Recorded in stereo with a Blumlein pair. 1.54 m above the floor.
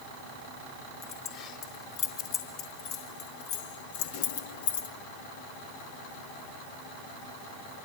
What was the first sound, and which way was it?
Keys jangling, 35° left.